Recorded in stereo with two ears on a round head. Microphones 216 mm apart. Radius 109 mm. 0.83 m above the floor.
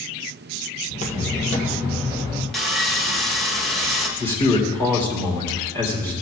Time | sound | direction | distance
0.9 | footsteps | 35° left (ahead or behind) | 1.4 m
2.5 | sawing | centre (ahead or behind) | 1.0 m
4.2 | a man speaking | 10° left (ahead or behind) | 2.5 m